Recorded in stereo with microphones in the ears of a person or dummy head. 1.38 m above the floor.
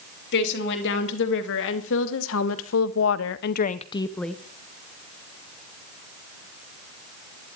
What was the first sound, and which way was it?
A woman speaking, 65° left (ahead or behind).